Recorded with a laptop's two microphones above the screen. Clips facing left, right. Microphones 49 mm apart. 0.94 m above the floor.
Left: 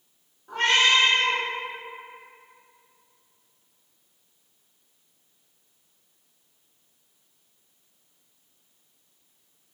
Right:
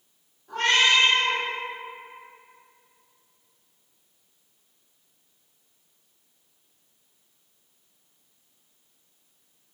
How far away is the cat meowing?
About 0.9 m.